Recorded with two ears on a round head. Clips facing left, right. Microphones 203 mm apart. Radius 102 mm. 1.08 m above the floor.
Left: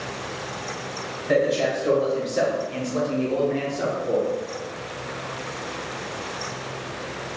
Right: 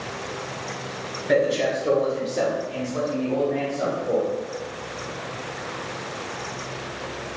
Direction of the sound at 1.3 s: 10° right (ahead or behind).